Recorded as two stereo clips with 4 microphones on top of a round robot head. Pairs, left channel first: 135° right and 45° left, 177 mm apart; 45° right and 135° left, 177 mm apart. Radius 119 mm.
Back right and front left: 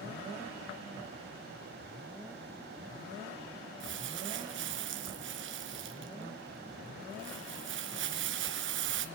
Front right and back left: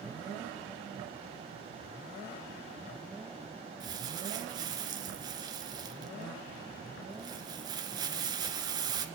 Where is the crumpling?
65° left, 2.5 m.